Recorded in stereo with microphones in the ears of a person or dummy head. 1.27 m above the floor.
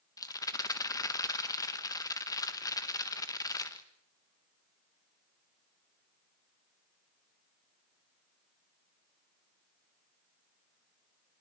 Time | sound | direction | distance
0.2 | a rattle | 20° left (ahead or behind) | 1.4 m